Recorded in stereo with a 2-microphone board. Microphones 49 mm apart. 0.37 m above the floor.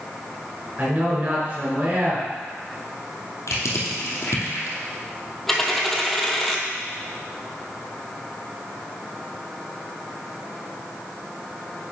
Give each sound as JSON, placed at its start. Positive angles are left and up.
{"t": 0.8, "sound": "a man speaking", "side_deg": -35, "distance_m": 4.5}
{"t": 3.5, "sound": "crushing", "side_deg": 80, "distance_m": 2.5}
{"t": 5.5, "sound": "a dropped coin", "side_deg": 5, "distance_m": 1.3}